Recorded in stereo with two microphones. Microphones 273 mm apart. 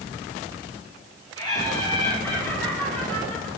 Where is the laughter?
15° left (ahead or behind), 1.8 m; by 3.5 s 5° left (ahead or behind), 3 m.